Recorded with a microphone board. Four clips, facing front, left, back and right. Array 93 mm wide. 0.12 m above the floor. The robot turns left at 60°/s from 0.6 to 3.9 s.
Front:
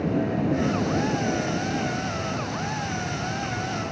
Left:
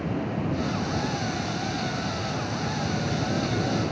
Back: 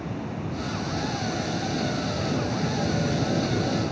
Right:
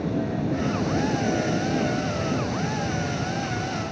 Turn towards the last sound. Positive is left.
turn(degrees=140)